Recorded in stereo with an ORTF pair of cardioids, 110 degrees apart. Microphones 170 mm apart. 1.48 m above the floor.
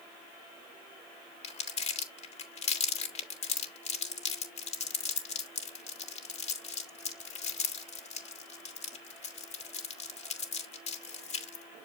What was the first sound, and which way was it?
Crumpling, 40° left.